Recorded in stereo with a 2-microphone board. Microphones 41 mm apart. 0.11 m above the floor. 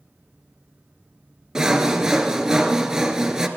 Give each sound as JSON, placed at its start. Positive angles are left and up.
{"t": 1.6, "sound": "sawing", "side_deg": -15, "distance_m": 1.4}